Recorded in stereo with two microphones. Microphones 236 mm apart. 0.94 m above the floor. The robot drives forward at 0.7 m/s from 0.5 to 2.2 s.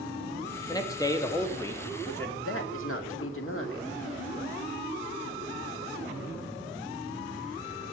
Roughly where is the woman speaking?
Left.